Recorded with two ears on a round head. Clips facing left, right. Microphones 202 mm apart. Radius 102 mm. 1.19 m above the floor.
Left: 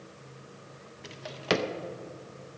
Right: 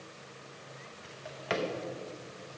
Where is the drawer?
50° left (ahead or behind), 0.5 m.